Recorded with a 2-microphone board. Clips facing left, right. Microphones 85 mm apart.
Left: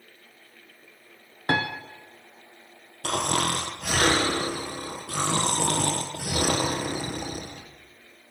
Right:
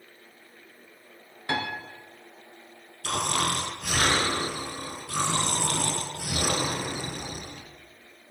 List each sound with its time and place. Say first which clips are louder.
1.5 s a piano: left 4 dB; 45° left (ahead or behind), 0.7 m
3.0 s snoring: left 2 dB; 55° left (ahead or behind), 0.9 m